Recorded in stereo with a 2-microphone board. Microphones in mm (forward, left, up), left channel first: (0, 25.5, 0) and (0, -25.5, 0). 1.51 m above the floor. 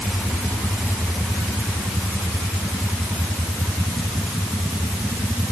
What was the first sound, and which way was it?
Only background noise.